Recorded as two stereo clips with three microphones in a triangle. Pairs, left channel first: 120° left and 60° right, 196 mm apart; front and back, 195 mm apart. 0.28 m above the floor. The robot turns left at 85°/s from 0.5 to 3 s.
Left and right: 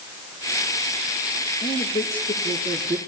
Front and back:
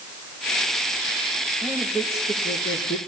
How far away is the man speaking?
About 6 m.